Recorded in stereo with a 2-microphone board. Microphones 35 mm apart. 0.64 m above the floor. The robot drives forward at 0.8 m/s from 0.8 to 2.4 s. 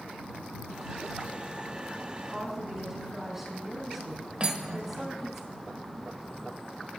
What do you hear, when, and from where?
2.3 s a woman speaking: 10° right (ahead or behind), 5.5 m
4.4 s cutlery clinking: 35° right (ahead or behind), 1.6 m